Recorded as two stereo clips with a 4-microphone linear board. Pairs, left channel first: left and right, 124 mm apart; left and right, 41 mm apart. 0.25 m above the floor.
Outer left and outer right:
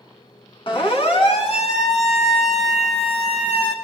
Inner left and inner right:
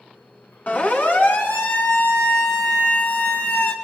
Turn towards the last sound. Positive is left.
turn(degrees=60)  # may be behind; listen again after turning